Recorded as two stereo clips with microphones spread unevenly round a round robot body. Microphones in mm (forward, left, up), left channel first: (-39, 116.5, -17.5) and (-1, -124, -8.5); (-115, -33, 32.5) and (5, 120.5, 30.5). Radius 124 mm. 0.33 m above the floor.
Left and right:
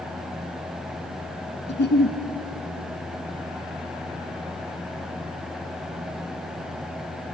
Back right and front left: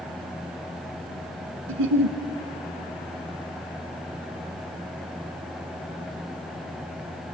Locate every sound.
1.7 s a giggle: 50° left, 1.2 m